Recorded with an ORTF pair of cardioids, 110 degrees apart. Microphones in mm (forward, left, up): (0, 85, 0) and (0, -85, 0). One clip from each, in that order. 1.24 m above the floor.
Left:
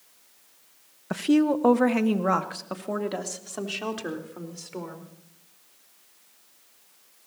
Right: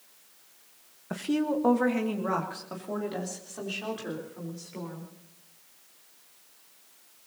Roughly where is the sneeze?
I don't hear a sneeze.